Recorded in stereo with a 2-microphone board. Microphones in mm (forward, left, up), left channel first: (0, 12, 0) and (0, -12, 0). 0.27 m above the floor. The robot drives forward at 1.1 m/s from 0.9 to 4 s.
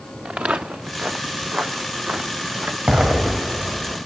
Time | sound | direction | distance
0.2 | footsteps | 65° right (ahead or behind) | 1.5 m
2.9 | an explosion | 45° right (ahead or behind) | 8 m